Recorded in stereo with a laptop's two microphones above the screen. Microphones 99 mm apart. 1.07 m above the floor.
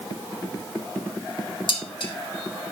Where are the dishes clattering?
55° left (ahead or behind), 1.8 m.